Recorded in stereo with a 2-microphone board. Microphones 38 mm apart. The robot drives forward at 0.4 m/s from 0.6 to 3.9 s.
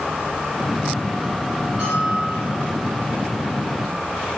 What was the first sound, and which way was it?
A bell, 15° right (ahead or behind).